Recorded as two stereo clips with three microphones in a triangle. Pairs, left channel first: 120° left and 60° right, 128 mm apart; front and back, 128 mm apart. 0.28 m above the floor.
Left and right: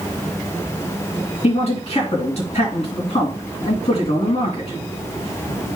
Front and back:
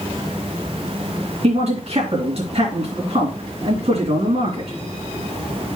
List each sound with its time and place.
1.4 s a man speaking: 150° left, 2.5 m